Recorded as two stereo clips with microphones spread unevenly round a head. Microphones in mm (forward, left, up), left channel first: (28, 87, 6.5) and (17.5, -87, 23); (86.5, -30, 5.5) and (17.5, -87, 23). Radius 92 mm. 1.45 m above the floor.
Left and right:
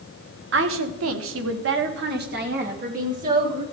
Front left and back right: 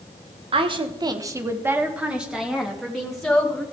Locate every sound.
0.5 s a woman speaking: 125° right, 1.2 m; by 3.6 s 45° right, 3.5 m